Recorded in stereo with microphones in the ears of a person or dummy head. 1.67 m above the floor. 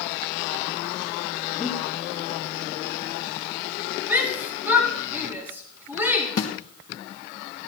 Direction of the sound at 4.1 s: 10° right (ahead or behind).